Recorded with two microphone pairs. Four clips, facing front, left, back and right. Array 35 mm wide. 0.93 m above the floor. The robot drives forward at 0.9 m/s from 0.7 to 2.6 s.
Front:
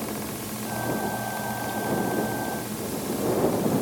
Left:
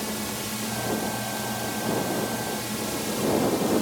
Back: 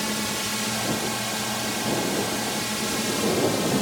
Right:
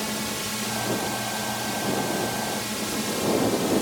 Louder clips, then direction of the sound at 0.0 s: Right 2 dB, back 5 dB; 165° right.